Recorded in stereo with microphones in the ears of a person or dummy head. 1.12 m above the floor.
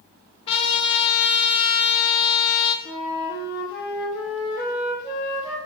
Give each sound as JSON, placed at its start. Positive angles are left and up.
{"t": 0.5, "sound": "a trumpet", "side_deg": 30, "distance_m": 1.1}
{"t": 2.9, "sound": "a flute", "side_deg": 25, "distance_m": 2.5}